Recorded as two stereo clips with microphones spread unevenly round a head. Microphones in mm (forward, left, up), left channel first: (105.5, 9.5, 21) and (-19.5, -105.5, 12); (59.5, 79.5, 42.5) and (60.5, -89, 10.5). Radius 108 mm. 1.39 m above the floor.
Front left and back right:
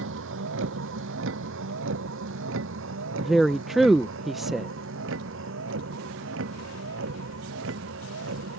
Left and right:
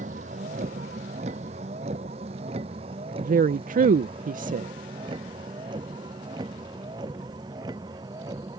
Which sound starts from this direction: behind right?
A vehicle, at 0.0 s.